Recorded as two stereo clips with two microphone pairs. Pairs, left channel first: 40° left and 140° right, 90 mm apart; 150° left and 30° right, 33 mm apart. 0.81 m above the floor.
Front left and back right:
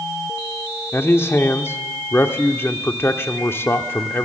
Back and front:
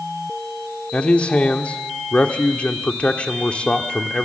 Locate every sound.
0.9 s a man speaking: 100° left, 1.6 m